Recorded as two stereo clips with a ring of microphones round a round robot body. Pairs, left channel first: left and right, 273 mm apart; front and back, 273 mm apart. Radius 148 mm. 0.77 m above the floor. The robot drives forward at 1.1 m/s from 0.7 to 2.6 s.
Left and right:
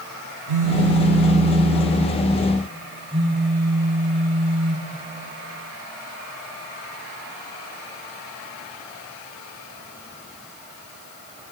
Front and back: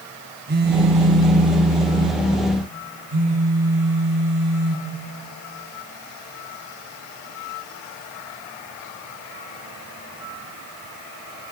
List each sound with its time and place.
0.5 s a phone buzzing: 125° right, 0.9 m; by 4.9 s 165° right, 2.5 m